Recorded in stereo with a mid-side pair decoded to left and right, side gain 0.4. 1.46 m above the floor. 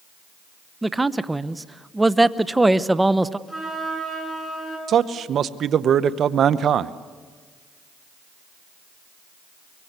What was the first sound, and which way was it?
A man speaking, 15° right.